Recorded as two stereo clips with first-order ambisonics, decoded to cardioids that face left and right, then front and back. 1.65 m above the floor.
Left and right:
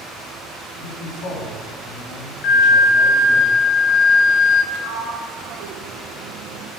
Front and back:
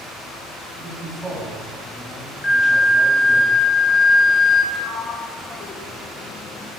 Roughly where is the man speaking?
Left.